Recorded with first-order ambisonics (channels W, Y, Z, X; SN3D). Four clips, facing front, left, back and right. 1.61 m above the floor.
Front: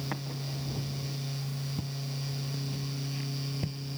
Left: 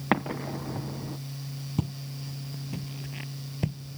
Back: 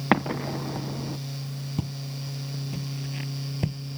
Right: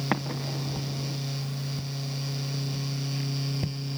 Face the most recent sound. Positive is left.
turn(degrees=165)